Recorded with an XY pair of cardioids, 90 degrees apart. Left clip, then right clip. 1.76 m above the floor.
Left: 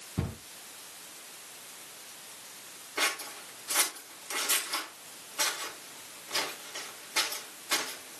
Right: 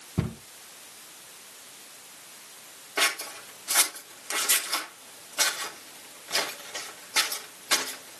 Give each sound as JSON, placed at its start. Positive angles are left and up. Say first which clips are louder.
{"t": 0.2, "sound": "a cupboard door", "louder": "right 4 dB", "azimuth_deg": -45, "distance_m": 2.5}
{"t": 3.0, "sound": "scissors", "louder": "right 4 dB", "azimuth_deg": -65, "distance_m": 2.0}